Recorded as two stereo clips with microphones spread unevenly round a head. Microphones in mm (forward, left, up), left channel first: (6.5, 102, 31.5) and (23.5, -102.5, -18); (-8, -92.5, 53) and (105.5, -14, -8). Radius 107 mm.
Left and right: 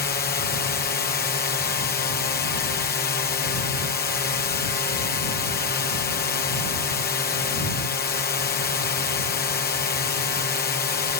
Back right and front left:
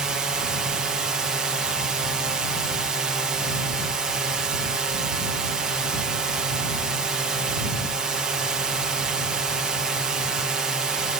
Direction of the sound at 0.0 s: 70° left.